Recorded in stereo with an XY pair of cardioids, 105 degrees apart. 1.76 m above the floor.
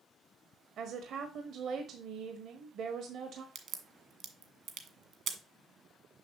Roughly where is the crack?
Ahead right.